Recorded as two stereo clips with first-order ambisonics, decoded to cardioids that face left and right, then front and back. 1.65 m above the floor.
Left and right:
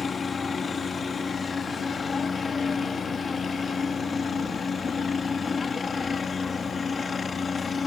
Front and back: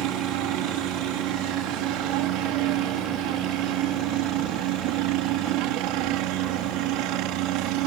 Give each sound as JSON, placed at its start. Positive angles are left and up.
{"t": 0.0, "sound": "a helicopter", "azimuth_deg": 165}